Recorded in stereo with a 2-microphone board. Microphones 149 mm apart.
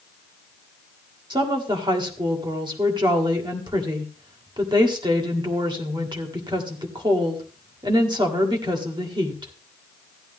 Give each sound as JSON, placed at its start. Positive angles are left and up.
{"t": 1.3, "sound": "a woman speaking", "side_deg": -30, "distance_m": 1.5}